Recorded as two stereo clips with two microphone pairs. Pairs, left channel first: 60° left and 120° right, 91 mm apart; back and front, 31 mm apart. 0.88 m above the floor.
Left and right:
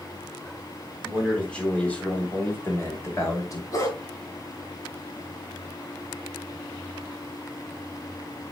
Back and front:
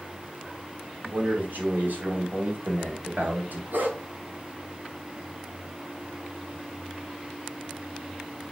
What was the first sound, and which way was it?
A man speaking, 25° right.